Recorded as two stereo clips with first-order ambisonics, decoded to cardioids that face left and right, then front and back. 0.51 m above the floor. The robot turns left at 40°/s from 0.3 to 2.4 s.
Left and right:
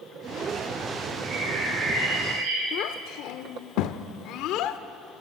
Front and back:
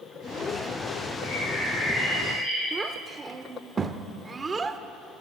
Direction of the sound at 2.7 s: 110° left.